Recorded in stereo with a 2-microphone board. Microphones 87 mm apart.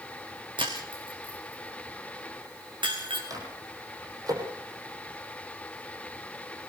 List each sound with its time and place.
0.6 s breaking glass: 75° right (ahead or behind), 4.5 m
3.3 s a microwave: 45° right (ahead or behind), 5 m